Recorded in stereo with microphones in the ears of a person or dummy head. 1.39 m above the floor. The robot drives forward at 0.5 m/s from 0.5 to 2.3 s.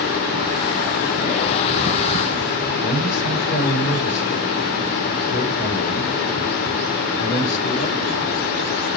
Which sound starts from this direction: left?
A man speaking, at 2.8 s.